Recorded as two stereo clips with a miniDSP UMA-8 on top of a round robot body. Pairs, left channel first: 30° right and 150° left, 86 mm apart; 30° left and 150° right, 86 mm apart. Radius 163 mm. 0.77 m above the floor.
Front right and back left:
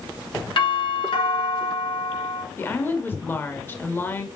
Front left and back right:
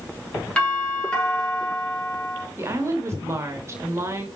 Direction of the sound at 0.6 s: 45° right.